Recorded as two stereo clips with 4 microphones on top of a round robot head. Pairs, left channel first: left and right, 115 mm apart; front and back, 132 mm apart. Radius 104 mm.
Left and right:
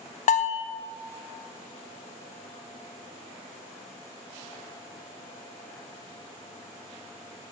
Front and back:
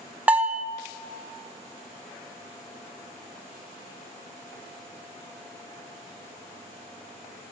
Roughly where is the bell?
Left.